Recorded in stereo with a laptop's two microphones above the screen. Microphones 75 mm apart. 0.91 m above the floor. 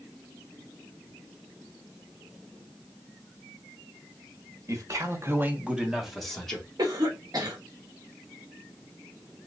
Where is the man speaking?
50° right (ahead or behind), 1.1 m; by 6.7 s 10° left (ahead or behind), 1.6 m.